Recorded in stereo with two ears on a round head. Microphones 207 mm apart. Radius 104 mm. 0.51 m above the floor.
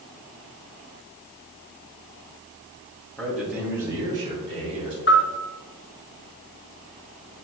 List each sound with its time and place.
3.2 s a man speaking: centre (ahead or behind), 2.5 m; by 5.0 s 30° right (ahead or behind), 4 m
5.1 s a bell: 50° left (ahead or behind), 1.5 m